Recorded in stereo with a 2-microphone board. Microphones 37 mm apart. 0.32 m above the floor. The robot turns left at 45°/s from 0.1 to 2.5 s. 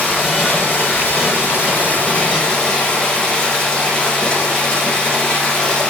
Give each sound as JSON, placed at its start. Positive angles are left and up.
{"t": 0.0, "sound": "running water", "azimuth_deg": 135, "distance_m": 5.0}